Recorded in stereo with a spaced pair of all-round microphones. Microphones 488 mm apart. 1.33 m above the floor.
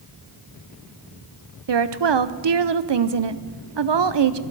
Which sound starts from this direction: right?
A woman speaking, at 1.7 s.